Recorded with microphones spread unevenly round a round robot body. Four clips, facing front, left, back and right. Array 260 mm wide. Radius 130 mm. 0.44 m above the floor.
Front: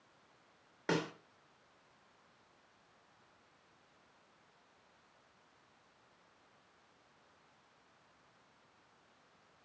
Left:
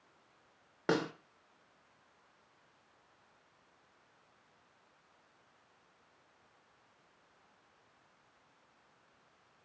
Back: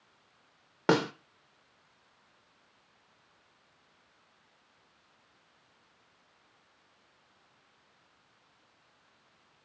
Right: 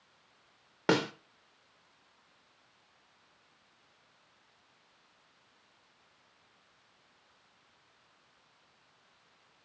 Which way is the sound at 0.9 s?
150° right.